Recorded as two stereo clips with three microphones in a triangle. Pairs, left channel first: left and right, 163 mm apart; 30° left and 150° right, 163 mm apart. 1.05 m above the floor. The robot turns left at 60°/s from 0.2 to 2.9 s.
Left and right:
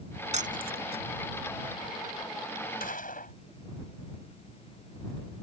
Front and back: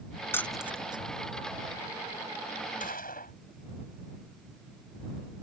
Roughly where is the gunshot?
Ahead left.